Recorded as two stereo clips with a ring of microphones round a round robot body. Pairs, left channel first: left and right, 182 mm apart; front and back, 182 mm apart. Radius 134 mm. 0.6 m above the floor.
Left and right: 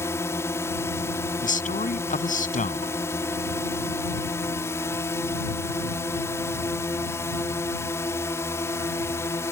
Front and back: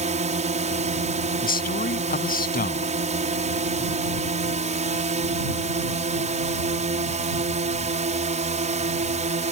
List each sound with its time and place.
0.0 s a drone: 160° left
1.4 s a man speaking: 40° left